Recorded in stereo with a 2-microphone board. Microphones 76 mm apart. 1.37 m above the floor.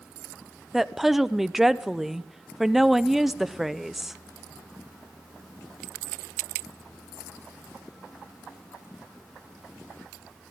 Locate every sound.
0.7 s a woman speaking: 5° right (ahead or behind), 0.6 m